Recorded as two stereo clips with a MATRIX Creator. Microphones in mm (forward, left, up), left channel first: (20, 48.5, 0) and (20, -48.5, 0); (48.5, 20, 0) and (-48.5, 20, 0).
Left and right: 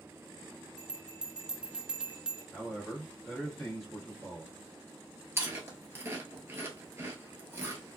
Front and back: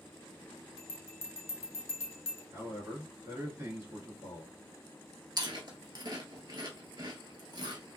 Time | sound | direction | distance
0.8 | a bell | 20° right | 0.7 m
2.5 | a man speaking | 175° left | 1.9 m
5.4 | chewing | 150° right | 0.9 m